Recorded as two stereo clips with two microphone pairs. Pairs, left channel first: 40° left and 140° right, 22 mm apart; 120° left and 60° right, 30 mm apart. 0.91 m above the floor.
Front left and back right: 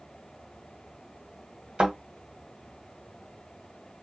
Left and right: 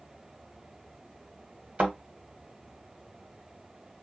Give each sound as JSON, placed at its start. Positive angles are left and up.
{"t": 1.8, "sound": "a thud", "azimuth_deg": -100, "distance_m": 1.8}